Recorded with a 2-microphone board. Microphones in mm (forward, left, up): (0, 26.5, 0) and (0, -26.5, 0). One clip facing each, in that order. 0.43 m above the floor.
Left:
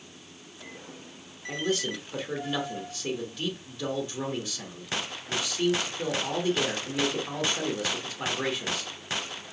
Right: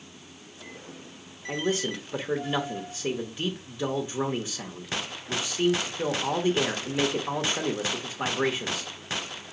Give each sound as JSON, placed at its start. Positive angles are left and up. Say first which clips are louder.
{"t": 1.5, "sound": "a man speaking", "louder": "right 1 dB", "side_deg": -20, "distance_m": 0.9}